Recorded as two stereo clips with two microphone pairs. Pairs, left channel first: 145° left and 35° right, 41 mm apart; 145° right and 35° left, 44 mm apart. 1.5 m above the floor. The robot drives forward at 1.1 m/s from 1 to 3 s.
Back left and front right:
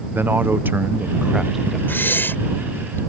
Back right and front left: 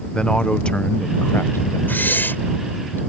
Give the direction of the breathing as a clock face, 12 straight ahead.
6 o'clock.